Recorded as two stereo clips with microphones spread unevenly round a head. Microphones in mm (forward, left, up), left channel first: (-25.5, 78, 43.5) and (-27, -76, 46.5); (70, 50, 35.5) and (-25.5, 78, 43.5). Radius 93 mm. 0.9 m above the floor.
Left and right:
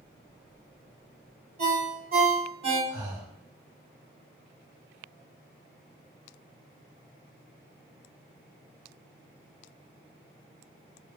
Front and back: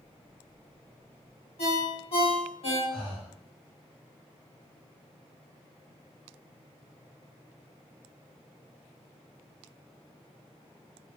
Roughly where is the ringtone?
Ahead right.